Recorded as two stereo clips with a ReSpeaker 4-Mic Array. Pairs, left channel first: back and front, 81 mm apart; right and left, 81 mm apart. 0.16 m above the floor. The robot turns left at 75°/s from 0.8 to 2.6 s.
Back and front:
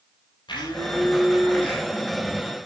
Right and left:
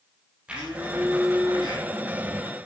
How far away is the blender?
About 6 m.